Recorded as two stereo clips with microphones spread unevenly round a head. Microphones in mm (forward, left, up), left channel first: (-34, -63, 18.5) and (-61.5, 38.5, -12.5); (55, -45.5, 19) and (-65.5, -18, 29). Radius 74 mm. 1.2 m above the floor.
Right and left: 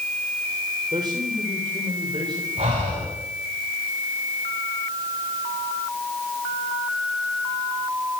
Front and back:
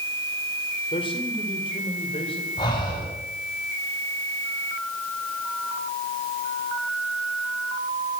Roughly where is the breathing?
Ahead left.